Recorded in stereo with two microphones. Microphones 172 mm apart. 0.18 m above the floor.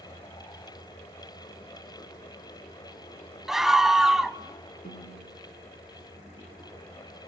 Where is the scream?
Centre (ahead or behind), 1.0 m.